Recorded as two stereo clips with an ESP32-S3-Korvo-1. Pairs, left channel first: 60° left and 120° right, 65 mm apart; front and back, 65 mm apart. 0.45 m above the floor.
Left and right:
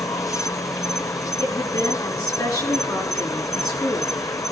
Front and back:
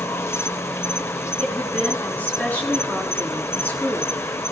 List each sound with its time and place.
0.0 s an insect: 35° left, 1.0 m
1.4 s a woman speaking: 65° left, 7 m